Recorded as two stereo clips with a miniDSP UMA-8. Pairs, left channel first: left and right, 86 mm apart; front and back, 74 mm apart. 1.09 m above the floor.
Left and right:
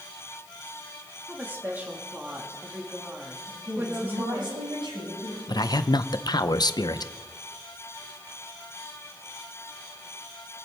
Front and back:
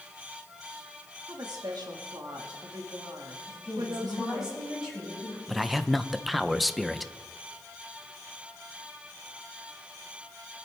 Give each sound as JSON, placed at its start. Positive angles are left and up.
{"t": 1.3, "sound": "a woman speaking", "azimuth_deg": -155, "distance_m": 1.8}
{"t": 3.5, "sound": "a woman speaking", "azimuth_deg": -95, "distance_m": 7.5}
{"t": 5.5, "sound": "a man speaking", "azimuth_deg": 90, "distance_m": 0.6}